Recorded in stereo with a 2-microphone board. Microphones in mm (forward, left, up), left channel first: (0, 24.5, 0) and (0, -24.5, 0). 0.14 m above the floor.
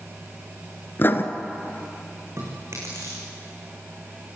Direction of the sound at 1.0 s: 45° left (ahead or behind).